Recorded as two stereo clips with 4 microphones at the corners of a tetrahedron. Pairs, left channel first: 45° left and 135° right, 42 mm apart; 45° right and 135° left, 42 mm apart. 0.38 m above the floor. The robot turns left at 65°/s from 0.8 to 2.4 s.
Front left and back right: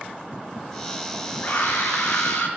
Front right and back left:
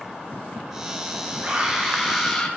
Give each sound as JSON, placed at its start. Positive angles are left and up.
{"t": 1.4, "sound": "a scream", "azimuth_deg": 90, "distance_m": 6.5}